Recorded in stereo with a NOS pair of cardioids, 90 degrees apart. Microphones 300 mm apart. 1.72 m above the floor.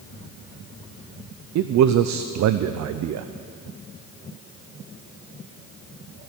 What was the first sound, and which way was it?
A man speaking, 60° right.